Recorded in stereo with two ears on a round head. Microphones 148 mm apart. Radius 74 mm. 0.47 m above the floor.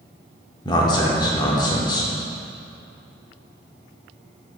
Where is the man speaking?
25° left (ahead or behind), 0.8 m.